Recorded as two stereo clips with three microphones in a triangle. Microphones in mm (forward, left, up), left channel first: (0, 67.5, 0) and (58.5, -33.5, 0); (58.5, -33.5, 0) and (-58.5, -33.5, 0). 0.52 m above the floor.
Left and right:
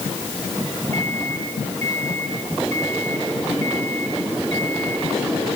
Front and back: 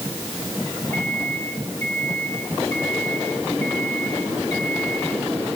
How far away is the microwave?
About 9 m.